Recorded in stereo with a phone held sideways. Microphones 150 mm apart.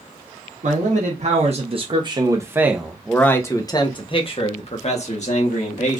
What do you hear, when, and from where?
0.6 s a man speaking: 60° right (ahead or behind), 1.3 m; by 6.0 s 60° left (ahead or behind), 1.8 m